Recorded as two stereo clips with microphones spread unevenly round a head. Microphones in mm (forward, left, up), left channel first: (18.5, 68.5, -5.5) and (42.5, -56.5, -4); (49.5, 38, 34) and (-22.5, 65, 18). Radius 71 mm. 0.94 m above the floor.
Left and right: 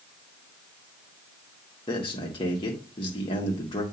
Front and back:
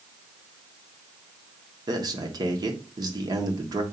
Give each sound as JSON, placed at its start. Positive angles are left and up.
{"t": 1.9, "sound": "a man speaking", "azimuth_deg": 155, "distance_m": 1.5}